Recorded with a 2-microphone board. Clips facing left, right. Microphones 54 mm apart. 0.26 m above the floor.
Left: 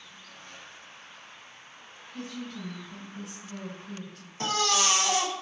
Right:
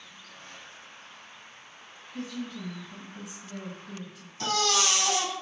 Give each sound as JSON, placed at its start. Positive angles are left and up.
{"t": 2.1, "sound": "a woman speaking", "side_deg": 0, "distance_m": 1.9}
{"t": 4.4, "sound": "a baby crying", "side_deg": 30, "distance_m": 0.6}